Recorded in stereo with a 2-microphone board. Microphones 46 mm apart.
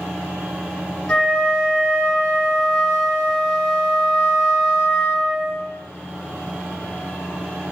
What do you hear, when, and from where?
1.1 s a flute: 20° left (ahead or behind), 1.0 m